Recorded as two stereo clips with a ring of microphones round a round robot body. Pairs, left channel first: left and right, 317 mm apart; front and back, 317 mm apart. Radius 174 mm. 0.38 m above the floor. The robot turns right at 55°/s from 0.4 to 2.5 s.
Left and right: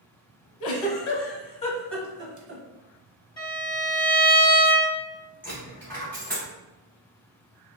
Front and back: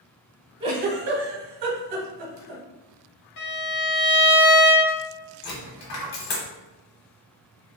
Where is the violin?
15° left, 1.9 m.